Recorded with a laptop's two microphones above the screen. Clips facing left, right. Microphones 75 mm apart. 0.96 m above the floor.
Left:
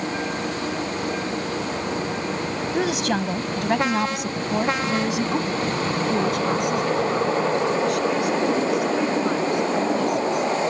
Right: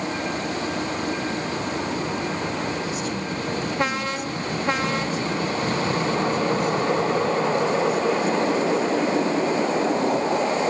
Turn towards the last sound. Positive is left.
turn(degrees=70)  # may be behind; listen again after turning